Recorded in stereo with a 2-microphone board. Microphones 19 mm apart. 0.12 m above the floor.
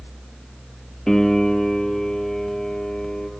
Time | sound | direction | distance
1.1 | a piano | 20° left (ahead or behind) | 2.5 m